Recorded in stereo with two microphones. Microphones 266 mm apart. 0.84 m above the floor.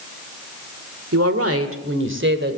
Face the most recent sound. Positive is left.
turn(degrees=-40)  # may be behind; listen again after turning